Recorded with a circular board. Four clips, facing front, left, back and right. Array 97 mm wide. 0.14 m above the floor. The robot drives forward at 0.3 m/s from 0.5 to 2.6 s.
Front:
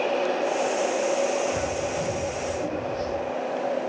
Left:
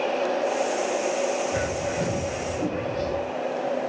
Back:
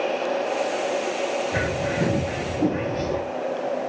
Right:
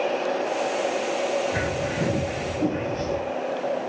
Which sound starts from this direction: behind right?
A bird, at 1.5 s.